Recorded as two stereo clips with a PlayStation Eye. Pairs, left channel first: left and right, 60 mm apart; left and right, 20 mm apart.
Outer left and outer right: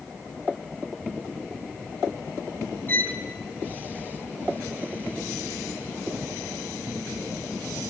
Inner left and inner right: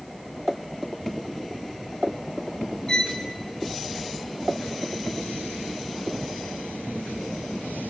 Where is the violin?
30° left (ahead or behind), 1.4 m.